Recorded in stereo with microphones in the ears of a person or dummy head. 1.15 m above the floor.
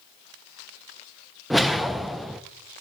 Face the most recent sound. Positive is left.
turn(degrees=0)  # may be behind; listen again after turning